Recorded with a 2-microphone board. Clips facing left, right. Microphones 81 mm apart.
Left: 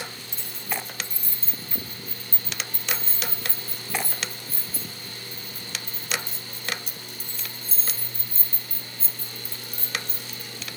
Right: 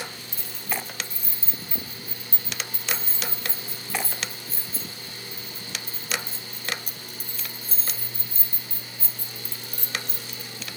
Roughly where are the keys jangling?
Centre.